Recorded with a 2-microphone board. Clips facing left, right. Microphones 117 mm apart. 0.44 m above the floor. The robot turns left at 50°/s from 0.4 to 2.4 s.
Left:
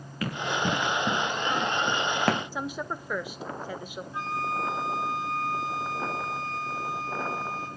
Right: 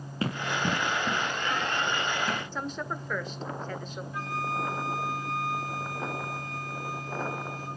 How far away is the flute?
About 6 m.